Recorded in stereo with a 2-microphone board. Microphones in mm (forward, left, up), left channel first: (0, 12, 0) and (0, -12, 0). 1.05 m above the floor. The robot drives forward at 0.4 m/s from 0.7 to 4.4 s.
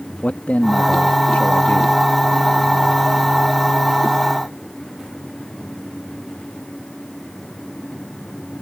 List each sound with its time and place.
0.2 s a man speaking: 80° left; by 2.0 s 65° left (ahead or behind)